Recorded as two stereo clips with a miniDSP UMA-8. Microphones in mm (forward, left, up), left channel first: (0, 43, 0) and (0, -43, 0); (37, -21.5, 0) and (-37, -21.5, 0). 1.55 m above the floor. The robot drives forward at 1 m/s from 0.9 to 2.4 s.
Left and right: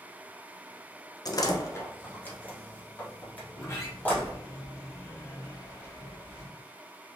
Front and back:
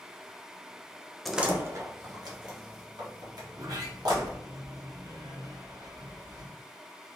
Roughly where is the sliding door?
Behind left.